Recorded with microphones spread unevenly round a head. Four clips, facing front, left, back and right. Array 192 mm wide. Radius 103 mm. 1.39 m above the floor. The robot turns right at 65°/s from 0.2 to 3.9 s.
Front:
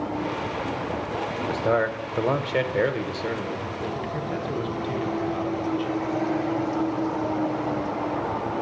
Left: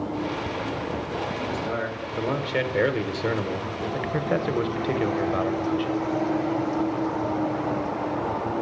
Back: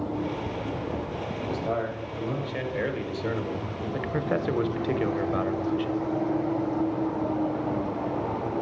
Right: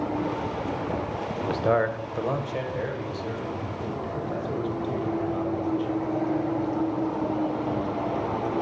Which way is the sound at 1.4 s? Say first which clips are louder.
Right 5 dB, front 6 dB; 55° right.